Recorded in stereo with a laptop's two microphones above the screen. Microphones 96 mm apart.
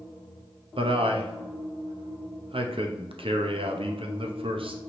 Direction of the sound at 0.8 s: 70° right (ahead or behind).